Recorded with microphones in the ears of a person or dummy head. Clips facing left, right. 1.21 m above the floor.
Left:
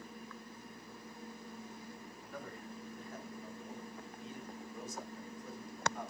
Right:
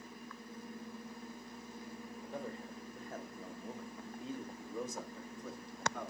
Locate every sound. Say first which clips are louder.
2.2 s a man speaking: right 4 dB; 25° right (ahead or behind), 1.8 m; by 6.1 s 60° right (ahead or behind), 2 m